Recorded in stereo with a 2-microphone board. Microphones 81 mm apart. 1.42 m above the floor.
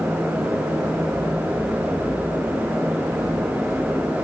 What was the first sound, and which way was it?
Only background noise.